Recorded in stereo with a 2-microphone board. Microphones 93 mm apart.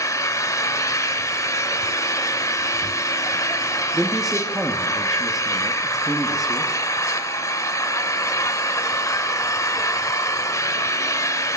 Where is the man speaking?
5° right (ahead or behind), 0.9 m.